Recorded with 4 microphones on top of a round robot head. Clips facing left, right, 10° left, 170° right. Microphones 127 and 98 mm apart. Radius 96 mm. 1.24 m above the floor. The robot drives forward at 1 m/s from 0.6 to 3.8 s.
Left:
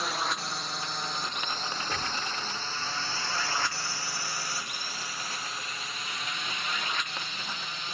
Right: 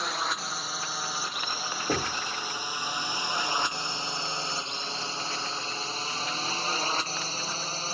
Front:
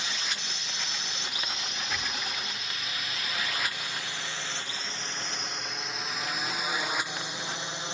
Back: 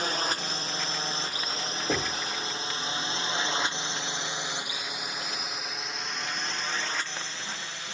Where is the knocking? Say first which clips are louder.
Right 9 dB, back 7 dB; 120° right; by 2.2 s 125° right.